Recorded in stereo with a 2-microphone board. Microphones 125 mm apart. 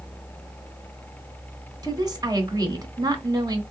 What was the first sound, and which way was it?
A woman speaking, 35° right (ahead or behind).